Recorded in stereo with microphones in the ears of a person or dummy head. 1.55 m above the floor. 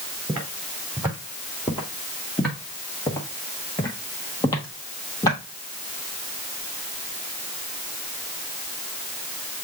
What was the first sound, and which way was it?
Footsteps, 15° right (ahead or behind).